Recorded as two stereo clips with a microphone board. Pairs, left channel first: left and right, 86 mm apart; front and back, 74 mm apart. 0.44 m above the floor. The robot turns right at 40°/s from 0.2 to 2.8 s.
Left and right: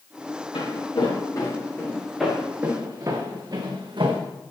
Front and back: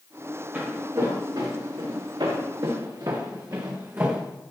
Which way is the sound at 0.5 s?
105° left.